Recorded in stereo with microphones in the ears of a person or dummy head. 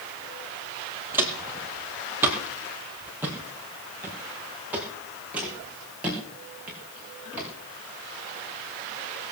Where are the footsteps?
10° right (ahead or behind), 2.5 m.